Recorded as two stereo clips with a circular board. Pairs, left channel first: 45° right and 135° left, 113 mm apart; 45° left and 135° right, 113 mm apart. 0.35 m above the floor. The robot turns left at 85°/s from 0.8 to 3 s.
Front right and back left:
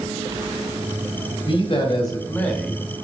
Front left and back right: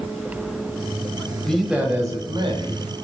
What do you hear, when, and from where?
1.5 s a man speaking: 35° right, 1.8 m; by 3.0 s 165° right, 1.8 m